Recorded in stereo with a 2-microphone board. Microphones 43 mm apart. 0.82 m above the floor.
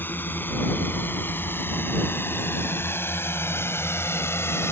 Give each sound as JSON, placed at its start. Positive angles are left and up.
{"t": 0.0, "sound": "a drone", "side_deg": 50}